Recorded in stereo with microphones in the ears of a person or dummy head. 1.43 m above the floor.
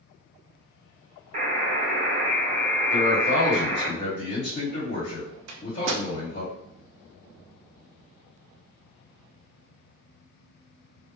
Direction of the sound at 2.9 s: 45° left (ahead or behind).